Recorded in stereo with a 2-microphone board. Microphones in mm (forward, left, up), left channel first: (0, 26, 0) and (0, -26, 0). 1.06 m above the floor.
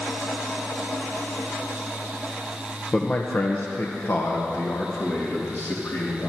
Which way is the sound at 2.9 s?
20° left (ahead or behind).